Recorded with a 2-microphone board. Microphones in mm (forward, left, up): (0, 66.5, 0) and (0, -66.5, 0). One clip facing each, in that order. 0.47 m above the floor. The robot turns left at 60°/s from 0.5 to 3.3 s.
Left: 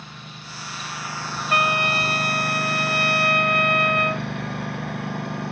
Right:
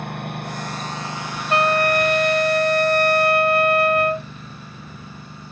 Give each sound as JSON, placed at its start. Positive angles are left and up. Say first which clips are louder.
{"t": 0.0, "sound": "a lawn mower", "louder": "right 12 dB", "azimuth_deg": -120}
{"t": 1.5, "sound": "a trumpet", "louder": "right 6 dB", "azimuth_deg": -35}